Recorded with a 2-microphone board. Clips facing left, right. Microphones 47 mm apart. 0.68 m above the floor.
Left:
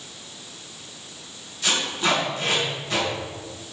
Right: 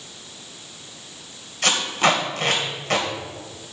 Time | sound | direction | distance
1.6 | tape being pulled | 70° right (ahead or behind) | 2.5 m